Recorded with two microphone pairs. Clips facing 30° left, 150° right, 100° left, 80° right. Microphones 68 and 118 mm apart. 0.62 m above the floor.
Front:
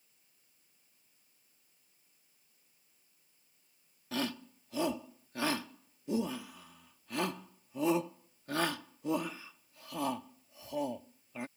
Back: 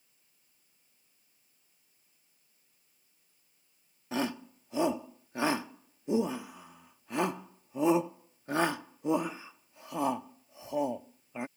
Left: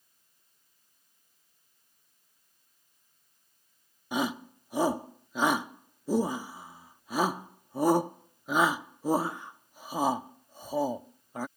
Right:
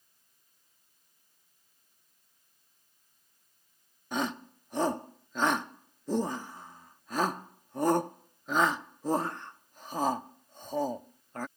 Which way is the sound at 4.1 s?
165° left.